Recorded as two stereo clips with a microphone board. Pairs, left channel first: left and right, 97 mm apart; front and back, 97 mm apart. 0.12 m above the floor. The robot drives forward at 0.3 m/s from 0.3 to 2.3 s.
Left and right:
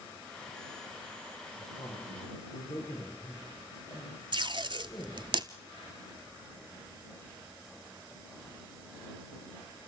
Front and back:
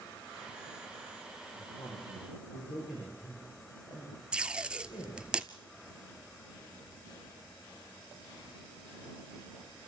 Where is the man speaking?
25° left, 7.5 m; by 5.2 s 30° left, 7 m.